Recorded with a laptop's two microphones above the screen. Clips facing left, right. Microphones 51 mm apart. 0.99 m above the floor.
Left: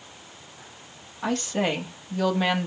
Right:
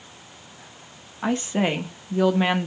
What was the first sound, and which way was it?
A woman speaking, 20° right (ahead or behind).